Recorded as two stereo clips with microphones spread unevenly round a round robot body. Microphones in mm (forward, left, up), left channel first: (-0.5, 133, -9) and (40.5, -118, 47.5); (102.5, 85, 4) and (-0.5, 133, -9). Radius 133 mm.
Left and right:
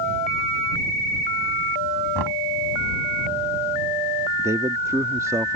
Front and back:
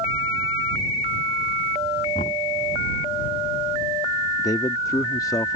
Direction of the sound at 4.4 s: 15° left.